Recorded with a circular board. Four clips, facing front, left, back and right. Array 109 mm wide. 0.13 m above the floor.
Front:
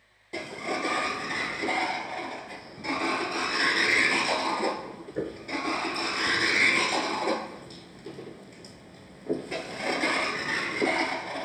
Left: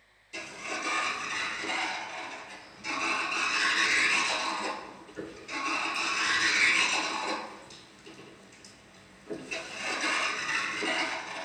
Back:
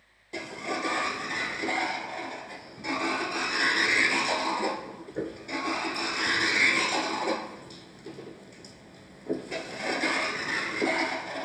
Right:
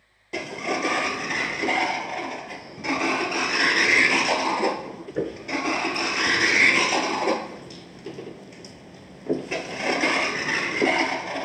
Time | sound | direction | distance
0.3 | a sliding door | 85° right | 0.6 m